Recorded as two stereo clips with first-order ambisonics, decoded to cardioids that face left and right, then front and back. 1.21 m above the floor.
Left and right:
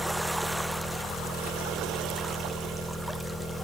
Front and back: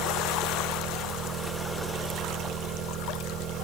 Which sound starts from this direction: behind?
An engine running, at 0.0 s.